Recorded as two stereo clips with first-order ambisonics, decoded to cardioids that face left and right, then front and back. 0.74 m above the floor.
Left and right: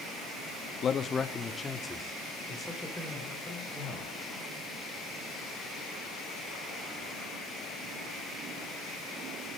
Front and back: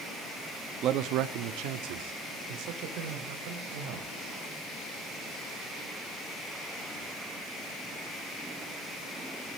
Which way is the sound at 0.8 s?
145° left.